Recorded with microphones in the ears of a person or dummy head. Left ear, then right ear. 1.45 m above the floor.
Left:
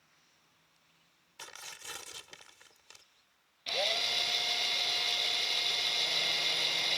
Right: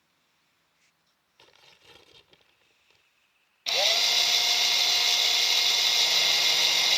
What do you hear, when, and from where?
1.4 s tearing paper: 55° left (ahead or behind)
3.7 s a drill: 25° right (ahead or behind)